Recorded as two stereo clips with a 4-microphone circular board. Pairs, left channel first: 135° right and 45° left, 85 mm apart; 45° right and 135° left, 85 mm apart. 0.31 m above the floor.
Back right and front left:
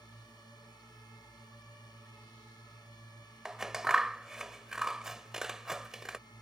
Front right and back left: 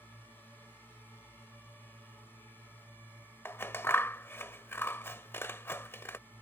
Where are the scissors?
30° right.